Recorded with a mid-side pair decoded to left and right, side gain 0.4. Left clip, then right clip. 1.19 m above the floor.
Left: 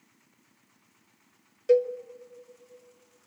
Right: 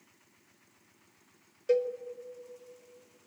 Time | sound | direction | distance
1.7 | a cowbell | 25° left | 1.0 m